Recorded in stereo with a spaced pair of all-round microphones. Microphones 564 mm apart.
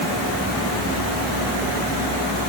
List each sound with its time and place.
Only background noise.